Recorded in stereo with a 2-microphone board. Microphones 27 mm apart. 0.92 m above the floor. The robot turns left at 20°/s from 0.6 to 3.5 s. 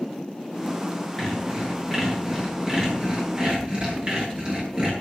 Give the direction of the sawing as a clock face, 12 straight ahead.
12 o'clock.